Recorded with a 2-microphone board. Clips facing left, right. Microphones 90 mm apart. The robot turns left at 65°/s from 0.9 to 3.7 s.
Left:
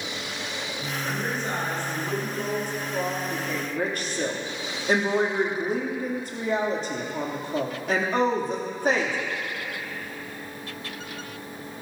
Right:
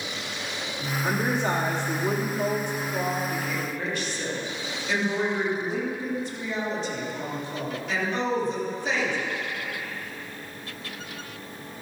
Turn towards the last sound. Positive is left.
turn(degrees=130)